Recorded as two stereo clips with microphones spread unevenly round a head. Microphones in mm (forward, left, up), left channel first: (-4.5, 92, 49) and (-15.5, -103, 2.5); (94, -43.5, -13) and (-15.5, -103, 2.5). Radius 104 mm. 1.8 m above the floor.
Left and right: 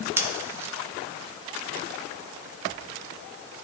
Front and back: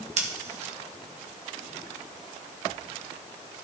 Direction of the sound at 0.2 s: 175° right.